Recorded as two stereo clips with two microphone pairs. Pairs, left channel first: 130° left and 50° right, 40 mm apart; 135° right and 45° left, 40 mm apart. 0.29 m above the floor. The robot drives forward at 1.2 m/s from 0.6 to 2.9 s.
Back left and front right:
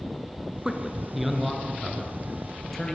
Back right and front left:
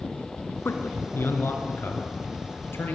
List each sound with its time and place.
0.7 s a man speaking: 125° right, 3 m; by 2.9 s 150° right, 5 m